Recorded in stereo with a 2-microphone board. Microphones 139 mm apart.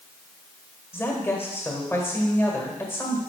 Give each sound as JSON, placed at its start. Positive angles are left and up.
{"t": 0.9, "sound": "a woman speaking", "side_deg": 15, "distance_m": 1.6}